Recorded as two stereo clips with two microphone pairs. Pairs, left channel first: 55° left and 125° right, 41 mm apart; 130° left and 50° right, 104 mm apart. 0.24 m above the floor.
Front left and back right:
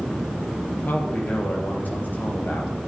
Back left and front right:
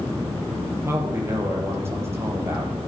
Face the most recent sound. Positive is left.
turn(degrees=15)